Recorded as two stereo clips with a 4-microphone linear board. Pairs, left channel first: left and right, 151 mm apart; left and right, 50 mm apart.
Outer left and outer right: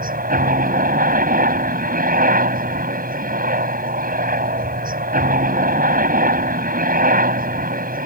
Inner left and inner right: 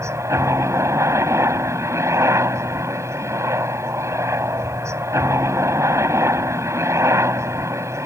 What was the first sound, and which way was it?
A helicopter, 70° right (ahead or behind).